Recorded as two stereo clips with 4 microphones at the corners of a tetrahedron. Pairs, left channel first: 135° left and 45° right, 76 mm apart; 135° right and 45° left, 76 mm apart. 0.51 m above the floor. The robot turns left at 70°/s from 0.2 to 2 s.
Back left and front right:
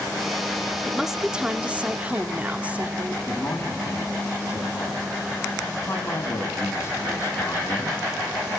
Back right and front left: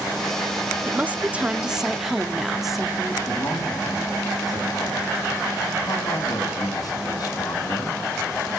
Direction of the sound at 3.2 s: 170° right.